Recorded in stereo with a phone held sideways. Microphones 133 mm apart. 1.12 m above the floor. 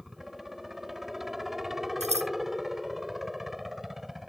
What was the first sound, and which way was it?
A helicopter, centre (ahead or behind).